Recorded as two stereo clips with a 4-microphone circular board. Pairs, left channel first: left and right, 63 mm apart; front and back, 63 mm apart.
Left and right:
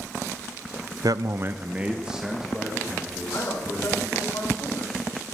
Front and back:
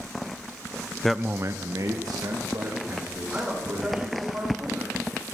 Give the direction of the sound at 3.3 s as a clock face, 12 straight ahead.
8 o'clock.